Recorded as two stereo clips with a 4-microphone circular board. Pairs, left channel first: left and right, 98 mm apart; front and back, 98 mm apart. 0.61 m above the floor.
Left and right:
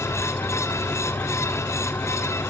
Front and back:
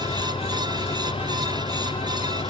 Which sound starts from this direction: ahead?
An engine running, at 0.0 s.